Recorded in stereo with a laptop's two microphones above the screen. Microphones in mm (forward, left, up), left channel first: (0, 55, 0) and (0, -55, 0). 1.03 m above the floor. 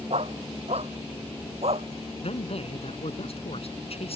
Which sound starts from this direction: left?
A man speaking, at 2.2 s.